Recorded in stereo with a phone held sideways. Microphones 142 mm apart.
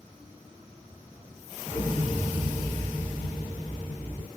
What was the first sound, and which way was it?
An explosion, 40° left (ahead or behind).